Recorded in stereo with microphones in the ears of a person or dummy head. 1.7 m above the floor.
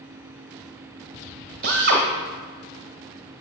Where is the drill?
50° right (ahead or behind), 1.6 m.